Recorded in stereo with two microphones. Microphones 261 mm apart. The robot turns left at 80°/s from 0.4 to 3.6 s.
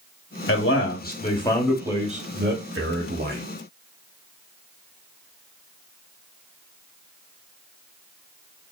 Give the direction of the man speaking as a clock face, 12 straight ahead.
9 o'clock.